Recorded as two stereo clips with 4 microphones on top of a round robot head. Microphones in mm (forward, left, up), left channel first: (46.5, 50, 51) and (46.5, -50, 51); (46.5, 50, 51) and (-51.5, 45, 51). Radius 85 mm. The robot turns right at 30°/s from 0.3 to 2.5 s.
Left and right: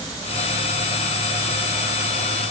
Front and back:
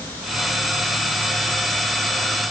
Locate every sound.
Only background noise.